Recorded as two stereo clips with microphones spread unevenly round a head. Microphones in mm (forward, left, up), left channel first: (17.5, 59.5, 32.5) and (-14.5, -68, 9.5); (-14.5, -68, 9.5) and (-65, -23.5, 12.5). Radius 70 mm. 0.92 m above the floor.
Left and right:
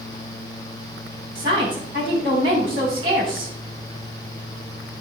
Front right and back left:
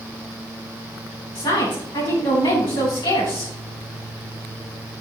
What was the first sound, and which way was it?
A woman speaking, 50° right.